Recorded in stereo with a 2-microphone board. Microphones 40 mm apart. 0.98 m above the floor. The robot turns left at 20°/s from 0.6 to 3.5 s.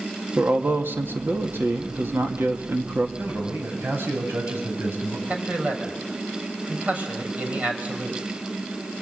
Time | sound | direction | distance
0.4 | a man speaking | 65° right | 2.0 m
3.2 | a man speaking | 70° right (ahead or behind) | 7.5 m
5.3 | a man speaking | 35° right (ahead or behind) | 5 m